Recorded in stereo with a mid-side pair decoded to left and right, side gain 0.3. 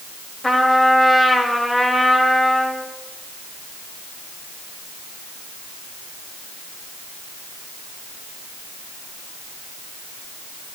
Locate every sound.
0.4 s a trumpet: 30° left, 4 m